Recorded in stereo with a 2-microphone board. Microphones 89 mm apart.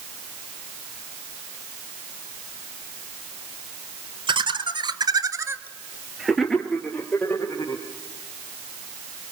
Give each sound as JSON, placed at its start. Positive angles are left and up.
{"t": 4.3, "sound": "laughter", "side_deg": -65, "distance_m": 2.5}